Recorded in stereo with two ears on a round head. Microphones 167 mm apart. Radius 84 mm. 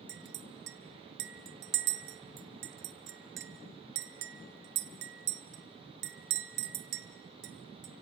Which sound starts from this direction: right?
A clink, at 0.1 s.